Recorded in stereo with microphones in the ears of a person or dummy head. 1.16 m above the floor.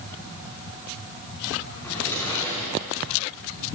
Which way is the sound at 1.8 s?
10° left (ahead or behind).